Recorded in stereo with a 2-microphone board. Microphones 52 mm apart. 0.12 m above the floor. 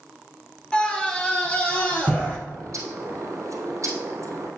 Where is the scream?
15° left (ahead or behind), 1.6 m; by 2.4 s 25° left (ahead or behind), 3 m.